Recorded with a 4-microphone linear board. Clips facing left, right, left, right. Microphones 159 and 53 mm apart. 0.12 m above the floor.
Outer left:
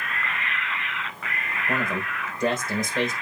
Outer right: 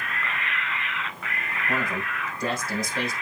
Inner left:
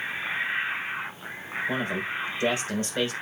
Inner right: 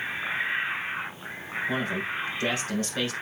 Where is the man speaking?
20° left (ahead or behind), 5 m.